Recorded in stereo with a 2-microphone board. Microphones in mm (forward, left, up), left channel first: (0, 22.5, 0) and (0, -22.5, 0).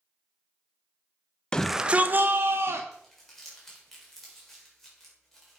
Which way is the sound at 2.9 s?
5° left (ahead or behind).